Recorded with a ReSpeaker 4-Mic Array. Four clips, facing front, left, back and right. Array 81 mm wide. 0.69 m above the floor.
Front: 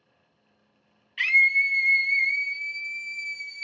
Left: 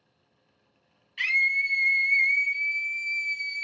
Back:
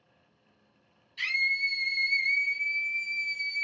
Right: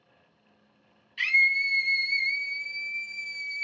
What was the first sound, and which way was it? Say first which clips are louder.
A scream: right 1 dB, front 8 dB; 5° left.